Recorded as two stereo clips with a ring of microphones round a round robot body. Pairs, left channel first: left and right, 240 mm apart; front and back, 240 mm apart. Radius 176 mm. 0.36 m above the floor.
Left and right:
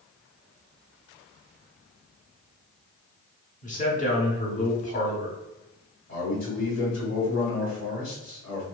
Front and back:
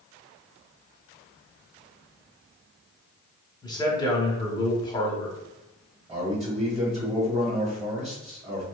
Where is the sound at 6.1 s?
130° left, 1.5 m.